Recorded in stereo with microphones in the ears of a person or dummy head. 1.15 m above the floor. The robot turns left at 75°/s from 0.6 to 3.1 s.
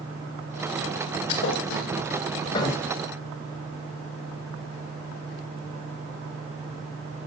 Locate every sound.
1.3 s a thud: 50° left (ahead or behind), 2.5 m; by 2.9 s 5° left (ahead or behind), 2.5 m